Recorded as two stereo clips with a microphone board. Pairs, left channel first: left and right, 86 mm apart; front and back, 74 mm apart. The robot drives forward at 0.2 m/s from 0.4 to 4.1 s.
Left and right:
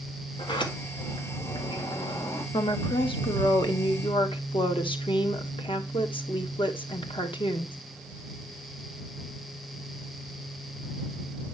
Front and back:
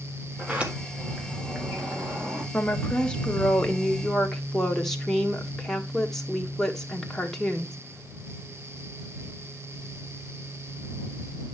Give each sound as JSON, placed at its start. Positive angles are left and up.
{"t": 0.4, "sound": "a sliding door", "azimuth_deg": 105, "distance_m": 1.7}
{"t": 2.5, "sound": "a woman speaking", "azimuth_deg": 75, "distance_m": 1.4}